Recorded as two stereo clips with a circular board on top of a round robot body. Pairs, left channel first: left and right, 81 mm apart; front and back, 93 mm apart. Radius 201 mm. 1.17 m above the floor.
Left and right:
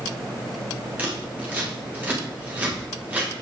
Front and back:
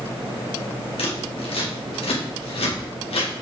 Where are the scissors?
20° right, 2 m.